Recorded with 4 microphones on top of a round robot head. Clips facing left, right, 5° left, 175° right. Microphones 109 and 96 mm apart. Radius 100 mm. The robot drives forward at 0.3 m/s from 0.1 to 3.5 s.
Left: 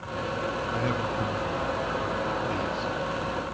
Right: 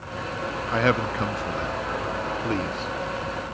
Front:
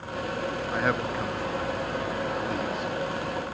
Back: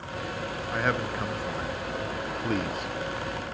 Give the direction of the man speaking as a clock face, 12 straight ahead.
3 o'clock.